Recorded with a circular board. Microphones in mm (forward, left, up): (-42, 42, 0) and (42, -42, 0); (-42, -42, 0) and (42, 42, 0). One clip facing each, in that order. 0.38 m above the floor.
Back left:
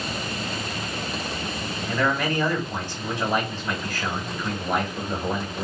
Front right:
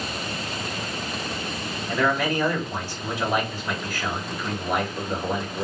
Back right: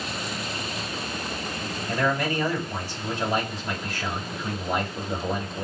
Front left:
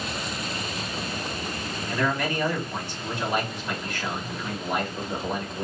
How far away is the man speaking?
About 1.7 m.